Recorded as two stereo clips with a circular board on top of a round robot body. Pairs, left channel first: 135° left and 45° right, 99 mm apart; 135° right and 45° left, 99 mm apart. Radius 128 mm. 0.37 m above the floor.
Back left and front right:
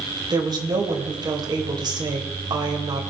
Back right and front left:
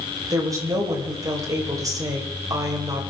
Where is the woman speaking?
5° right, 3 m.